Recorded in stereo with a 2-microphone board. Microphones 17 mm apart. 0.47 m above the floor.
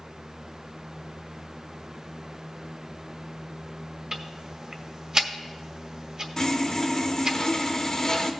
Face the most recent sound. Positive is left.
turn(degrees=30)  # may be behind; listen again after turning